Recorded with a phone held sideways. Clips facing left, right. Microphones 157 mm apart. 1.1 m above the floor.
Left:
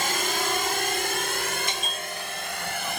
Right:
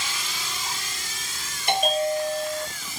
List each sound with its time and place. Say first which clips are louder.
0.0 s a drone: left 9 dB; 60° left (ahead or behind); by 3.0 s 75° left (ahead or behind)
1.7 s a bell: right 12 dB; 75° right (ahead or behind)